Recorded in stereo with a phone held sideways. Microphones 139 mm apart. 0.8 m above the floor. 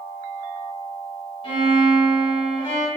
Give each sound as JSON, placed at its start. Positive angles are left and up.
{"t": 1.4, "sound": "a violin", "side_deg": 40, "distance_m": 1.7}